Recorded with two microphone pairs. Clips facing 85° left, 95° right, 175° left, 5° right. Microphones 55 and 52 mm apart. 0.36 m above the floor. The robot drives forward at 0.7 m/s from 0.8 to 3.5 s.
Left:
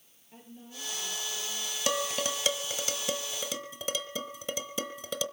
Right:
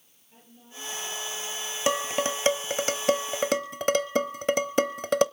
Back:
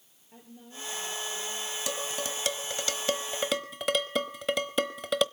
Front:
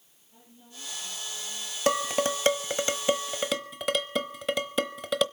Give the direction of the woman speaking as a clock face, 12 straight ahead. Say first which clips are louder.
Left 1 dB, back 4 dB; 7 o'clock.